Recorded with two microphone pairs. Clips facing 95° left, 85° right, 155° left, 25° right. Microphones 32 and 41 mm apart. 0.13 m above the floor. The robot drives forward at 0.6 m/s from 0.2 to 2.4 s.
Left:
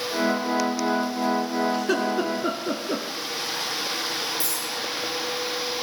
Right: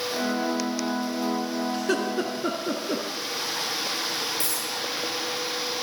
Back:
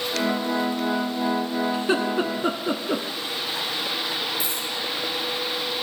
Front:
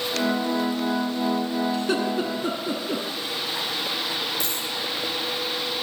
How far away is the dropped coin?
About 9.5 m.